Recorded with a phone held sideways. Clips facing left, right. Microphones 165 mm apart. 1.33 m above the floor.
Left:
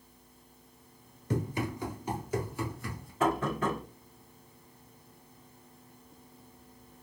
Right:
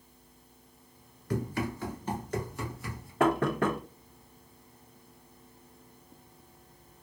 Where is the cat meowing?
No cat meowing in this recording.